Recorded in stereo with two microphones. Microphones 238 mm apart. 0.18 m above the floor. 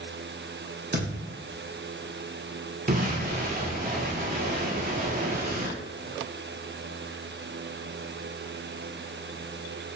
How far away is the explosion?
About 0.8 m.